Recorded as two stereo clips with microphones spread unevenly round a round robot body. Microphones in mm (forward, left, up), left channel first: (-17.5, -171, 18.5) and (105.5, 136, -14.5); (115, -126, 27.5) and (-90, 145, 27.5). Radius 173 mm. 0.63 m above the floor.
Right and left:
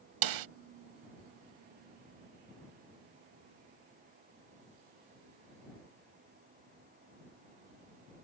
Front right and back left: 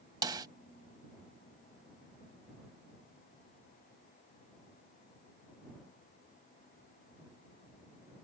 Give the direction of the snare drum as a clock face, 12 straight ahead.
10 o'clock.